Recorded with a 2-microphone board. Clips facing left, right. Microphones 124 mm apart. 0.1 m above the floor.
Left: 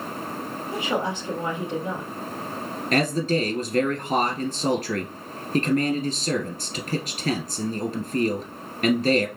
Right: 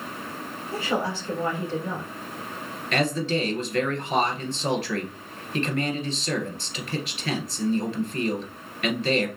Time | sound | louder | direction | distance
0.7 | a woman speaking | even | 20° left (ahead or behind) | 3 m
2.9 | a man speaking | left 2 dB | 40° left (ahead or behind) | 1.4 m